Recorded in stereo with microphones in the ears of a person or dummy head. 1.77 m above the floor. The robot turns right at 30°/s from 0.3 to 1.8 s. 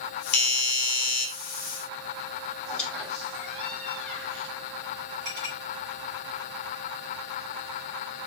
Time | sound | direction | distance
0.3 | a doorbell | 40° left (ahead or behind) | 1.5 m
2.6 | a squeak | 5° left (ahead or behind) | 3 m
5.2 | a clink | 40° right (ahead or behind) | 3 m